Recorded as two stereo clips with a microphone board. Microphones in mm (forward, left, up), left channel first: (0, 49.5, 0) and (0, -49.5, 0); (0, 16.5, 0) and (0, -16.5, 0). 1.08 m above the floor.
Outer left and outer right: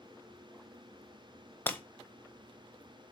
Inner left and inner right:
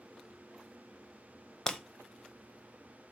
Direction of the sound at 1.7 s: 20° left (ahead or behind).